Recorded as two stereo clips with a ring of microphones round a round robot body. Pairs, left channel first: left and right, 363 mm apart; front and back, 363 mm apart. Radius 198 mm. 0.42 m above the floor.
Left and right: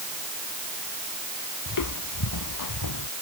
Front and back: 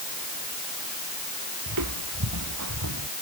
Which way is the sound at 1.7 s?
130° left.